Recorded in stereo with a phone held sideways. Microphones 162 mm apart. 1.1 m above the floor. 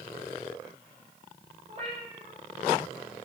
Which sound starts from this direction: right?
A cat meowing, at 1.7 s.